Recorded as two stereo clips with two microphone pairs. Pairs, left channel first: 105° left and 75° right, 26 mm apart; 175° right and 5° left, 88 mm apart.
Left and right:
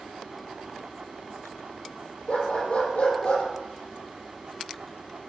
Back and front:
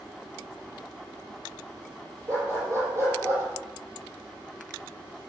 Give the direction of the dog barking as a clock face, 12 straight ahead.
10 o'clock.